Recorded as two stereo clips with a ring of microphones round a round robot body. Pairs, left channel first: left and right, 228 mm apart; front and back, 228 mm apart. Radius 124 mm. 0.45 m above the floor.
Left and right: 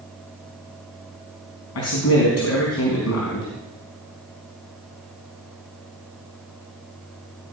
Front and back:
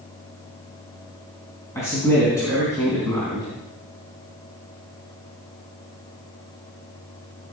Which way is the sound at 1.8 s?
80° left.